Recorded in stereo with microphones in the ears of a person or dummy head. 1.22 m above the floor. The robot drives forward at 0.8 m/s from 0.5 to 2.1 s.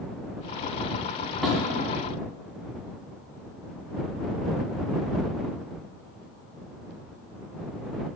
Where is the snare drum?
5° right (ahead or behind), 2.0 m.